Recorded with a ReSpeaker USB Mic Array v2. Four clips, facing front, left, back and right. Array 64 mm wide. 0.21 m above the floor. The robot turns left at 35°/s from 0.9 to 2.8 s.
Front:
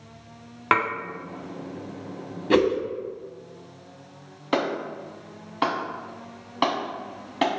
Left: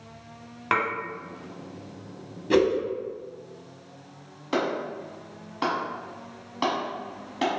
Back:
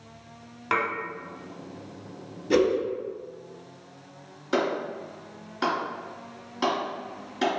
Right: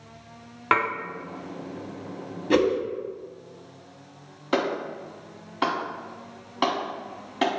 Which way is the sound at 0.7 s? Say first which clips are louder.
Right 3 dB, front 4 dB; 20° right.